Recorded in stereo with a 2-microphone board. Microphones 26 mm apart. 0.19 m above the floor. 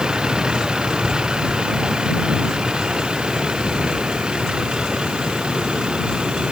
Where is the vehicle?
35° right (ahead or behind); by 6.5 s 40° right (ahead or behind).